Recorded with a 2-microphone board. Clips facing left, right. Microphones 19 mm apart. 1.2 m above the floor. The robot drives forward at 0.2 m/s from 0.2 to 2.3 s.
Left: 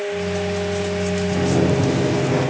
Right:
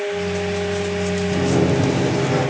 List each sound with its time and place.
1.3 s a sliding door: 50° right (ahead or behind), 4 m